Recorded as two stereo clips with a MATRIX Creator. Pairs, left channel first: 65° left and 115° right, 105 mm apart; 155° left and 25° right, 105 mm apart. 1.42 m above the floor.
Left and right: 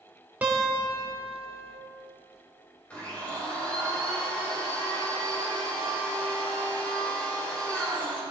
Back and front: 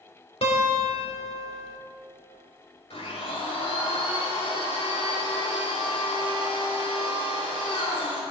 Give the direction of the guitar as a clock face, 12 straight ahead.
6 o'clock.